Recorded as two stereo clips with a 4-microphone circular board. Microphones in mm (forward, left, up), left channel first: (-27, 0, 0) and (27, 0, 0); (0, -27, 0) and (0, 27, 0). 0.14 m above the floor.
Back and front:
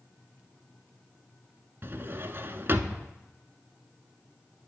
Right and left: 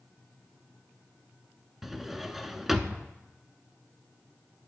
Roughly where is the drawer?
Ahead.